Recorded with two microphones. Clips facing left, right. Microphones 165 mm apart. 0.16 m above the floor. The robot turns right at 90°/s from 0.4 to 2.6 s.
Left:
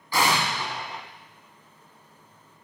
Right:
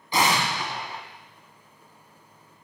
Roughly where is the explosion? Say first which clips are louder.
Right 1 dB; centre.